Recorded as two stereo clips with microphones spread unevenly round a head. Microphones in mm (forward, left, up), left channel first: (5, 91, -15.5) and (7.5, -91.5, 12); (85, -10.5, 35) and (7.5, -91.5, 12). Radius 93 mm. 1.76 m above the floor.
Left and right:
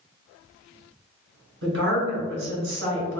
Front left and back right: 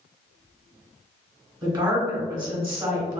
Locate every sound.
1.6 s a woman speaking: 85° right, 1.9 m